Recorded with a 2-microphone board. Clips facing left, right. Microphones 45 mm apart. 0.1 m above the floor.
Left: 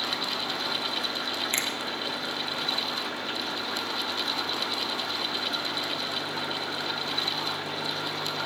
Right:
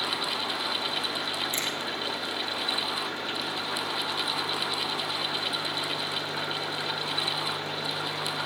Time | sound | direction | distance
1.5 | a finger snap | 60° left (ahead or behind) | 3 m